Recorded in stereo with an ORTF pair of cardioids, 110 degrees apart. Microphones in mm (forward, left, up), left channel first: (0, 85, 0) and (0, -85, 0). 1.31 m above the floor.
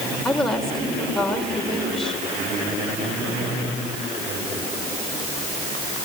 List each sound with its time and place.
0.2 s a woman speaking: straight ahead, 5.5 m